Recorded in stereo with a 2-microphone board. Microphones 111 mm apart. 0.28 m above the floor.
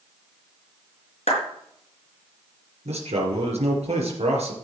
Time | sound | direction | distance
1.3 | a clap | 75° left (ahead or behind) | 4 m
2.9 | a man speaking | 70° right (ahead or behind) | 4.5 m